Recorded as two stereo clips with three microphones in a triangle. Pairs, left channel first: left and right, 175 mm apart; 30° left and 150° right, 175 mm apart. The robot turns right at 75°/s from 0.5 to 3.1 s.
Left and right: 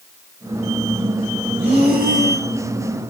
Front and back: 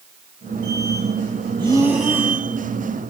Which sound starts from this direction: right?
Breathing, at 1.6 s.